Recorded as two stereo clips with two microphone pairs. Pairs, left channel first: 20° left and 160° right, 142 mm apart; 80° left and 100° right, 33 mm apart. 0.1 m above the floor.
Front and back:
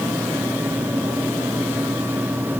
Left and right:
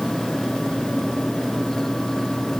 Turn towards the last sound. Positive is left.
No sound to turn to.